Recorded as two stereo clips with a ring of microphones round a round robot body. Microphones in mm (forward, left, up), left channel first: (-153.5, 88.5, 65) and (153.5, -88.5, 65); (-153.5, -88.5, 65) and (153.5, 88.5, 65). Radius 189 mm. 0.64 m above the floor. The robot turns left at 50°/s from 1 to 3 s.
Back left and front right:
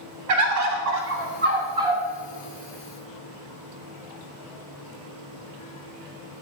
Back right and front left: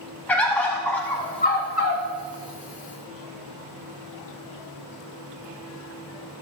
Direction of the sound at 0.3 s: 65° right.